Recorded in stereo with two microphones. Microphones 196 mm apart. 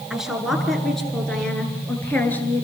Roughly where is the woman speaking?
Centre.